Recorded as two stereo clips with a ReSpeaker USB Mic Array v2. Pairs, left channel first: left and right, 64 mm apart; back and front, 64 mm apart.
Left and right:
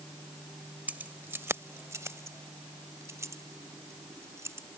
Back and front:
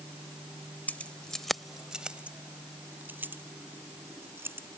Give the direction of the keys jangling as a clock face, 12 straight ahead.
5 o'clock.